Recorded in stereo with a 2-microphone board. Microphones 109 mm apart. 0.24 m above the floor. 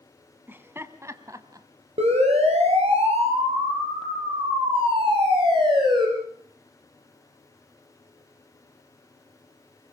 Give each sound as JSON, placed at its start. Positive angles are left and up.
{"t": 0.5, "sound": "laughter", "side_deg": -20, "distance_m": 1.8}
{"t": 2.0, "sound": "a siren", "side_deg": -80, "distance_m": 6.5}